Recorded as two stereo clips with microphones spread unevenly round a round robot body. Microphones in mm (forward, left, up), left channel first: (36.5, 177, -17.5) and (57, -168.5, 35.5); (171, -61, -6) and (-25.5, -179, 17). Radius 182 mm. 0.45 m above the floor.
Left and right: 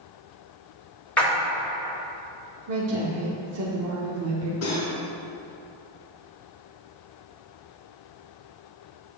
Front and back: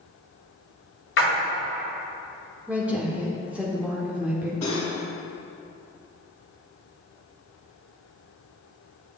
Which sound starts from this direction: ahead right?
A woman speaking, at 2.7 s.